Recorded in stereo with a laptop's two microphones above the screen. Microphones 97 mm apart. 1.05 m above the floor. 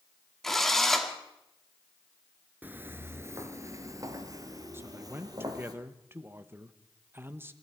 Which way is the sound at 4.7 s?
20° right (ahead or behind).